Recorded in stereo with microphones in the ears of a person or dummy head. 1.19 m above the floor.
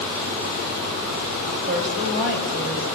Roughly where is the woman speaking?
Right.